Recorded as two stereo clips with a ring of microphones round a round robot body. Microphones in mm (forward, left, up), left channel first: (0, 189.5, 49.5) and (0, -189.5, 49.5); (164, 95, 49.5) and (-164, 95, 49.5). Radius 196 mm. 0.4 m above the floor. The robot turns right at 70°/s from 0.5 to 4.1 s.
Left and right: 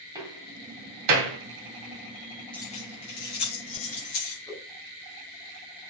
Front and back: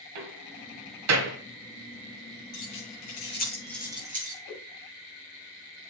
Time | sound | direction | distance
0.1 | a door slam | 170° right | 2 m
2.5 | keys jangling | straight ahead | 6 m
4.5 | a whoosh | straight ahead | 2.5 m